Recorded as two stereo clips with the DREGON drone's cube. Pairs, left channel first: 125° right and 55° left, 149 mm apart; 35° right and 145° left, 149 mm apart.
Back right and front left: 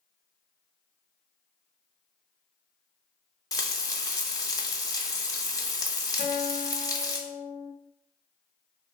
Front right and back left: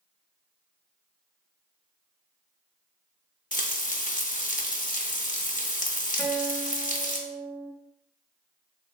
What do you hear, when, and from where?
3.5 s frying: 60° right, 0.5 m
6.2 s a guitar: 60° left, 0.9 m